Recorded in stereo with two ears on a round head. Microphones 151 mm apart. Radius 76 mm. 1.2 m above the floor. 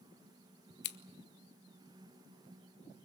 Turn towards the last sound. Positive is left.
turn(degrees=70)  # may be behind; listen again after turning